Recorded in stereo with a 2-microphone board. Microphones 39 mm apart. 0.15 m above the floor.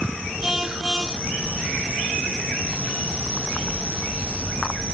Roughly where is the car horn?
Centre.